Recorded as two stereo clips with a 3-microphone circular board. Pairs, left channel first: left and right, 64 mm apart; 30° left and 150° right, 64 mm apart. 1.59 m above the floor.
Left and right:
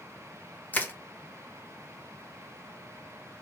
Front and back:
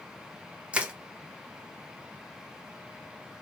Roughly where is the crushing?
Behind left.